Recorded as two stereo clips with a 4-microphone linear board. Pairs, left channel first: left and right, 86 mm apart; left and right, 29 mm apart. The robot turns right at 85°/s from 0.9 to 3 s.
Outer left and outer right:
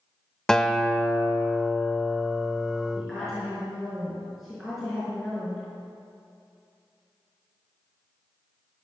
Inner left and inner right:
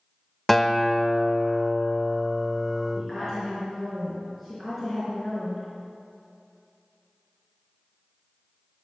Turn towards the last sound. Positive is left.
turn(degrees=0)  # may be behind; listen again after turning